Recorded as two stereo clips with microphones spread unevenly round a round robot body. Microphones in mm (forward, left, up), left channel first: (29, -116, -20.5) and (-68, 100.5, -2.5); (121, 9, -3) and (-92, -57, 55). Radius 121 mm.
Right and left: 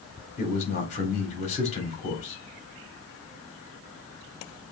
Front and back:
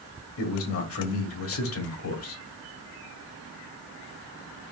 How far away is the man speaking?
About 2 m.